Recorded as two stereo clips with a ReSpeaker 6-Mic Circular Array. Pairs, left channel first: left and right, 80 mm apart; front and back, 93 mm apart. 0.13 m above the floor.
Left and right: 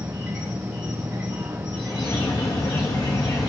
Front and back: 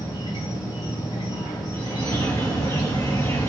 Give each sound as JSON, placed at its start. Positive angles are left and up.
{"t": 0.0, "sound": "an insect", "azimuth_deg": -15, "distance_m": 4.0}
{"t": 1.7, "sound": "a bird", "azimuth_deg": 55, "distance_m": 2.5}